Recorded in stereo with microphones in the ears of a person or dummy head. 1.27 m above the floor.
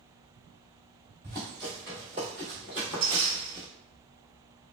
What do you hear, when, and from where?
1.2 s running footsteps: centre (ahead or behind), 1.3 m; by 3.7 s 10° left (ahead or behind), 1.4 m